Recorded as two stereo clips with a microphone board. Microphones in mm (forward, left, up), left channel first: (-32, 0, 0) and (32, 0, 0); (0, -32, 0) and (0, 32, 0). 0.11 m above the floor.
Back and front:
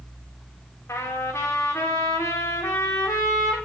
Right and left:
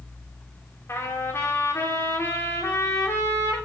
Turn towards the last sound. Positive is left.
turn(degrees=-135)